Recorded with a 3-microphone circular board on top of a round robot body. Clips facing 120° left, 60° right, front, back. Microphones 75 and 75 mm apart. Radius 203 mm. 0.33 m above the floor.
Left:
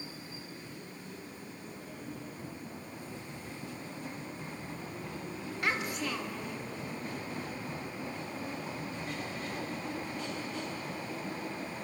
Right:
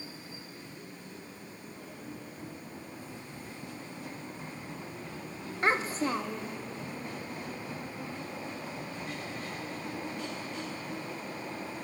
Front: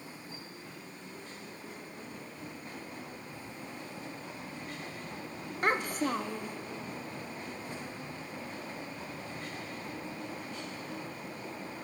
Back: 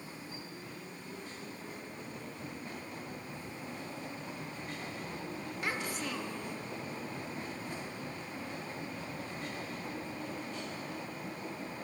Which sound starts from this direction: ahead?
A child speaking, at 5.6 s.